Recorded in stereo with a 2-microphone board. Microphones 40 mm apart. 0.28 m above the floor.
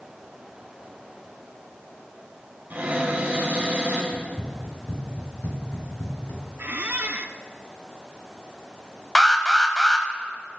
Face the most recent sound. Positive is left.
turn(degrees=10)  # may be behind; listen again after turning